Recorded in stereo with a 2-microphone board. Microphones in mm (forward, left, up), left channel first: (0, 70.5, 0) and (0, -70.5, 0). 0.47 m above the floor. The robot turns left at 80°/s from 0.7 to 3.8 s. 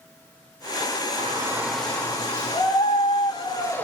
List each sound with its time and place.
1.2 s a shout: 130° right, 1.7 m; by 3.9 s 20° left, 1.7 m